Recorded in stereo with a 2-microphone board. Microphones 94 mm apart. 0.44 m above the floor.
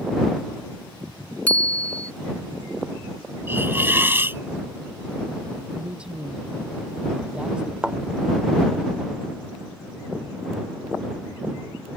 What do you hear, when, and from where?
1.5 s a bicycle bell: 15° left (ahead or behind)
3.5 s a hiss: 25° right (ahead or behind)
5.7 s a man speaking: 10° right (ahead or behind)
7.8 s a thud: 10° right (ahead or behind)